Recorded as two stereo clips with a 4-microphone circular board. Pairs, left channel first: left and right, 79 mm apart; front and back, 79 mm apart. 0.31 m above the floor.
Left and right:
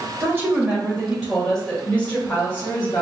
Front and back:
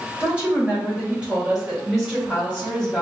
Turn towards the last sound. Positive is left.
turn(degrees=95)